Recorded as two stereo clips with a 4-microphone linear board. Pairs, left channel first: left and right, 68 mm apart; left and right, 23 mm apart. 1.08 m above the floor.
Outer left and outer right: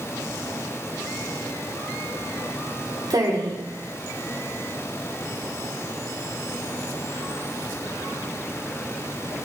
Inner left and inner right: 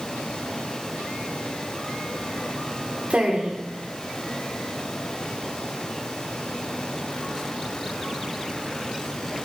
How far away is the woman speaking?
About 3.5 m.